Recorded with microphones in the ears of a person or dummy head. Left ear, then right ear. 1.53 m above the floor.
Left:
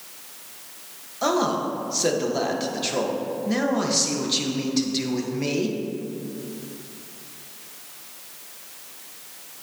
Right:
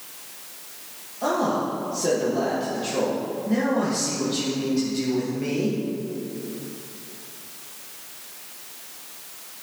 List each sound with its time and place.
1.2 s a man speaking: 35° left (ahead or behind), 1.3 m